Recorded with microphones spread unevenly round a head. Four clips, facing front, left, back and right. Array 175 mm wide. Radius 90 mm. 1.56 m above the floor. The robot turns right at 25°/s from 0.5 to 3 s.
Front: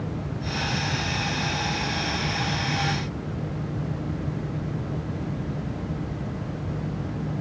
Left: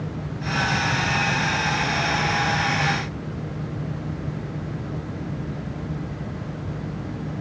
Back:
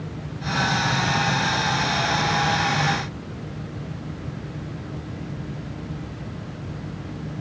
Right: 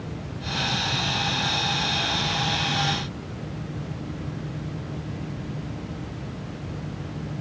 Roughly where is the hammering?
I don't hear hammering.